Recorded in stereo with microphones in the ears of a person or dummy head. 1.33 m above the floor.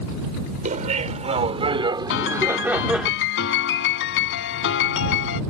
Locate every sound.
0.7 s laughter: 40° right (ahead or behind); by 3.1 s 5° left (ahead or behind)
2.1 s a piano: 70° left (ahead or behind)